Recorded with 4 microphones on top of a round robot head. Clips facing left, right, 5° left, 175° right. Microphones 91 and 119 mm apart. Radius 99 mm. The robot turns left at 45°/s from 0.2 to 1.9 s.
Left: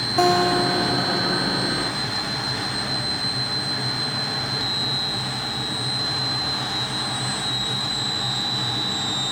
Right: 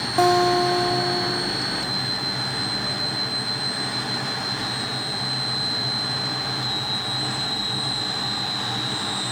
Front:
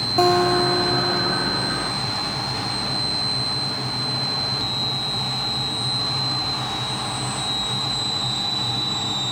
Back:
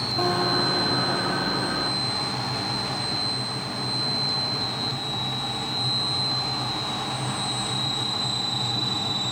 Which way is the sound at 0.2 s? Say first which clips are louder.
Right 1 dB, front 8 dB; 5° right.